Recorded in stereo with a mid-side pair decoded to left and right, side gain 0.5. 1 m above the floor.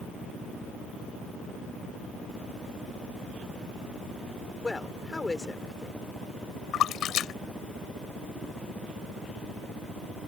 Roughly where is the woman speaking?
Ahead.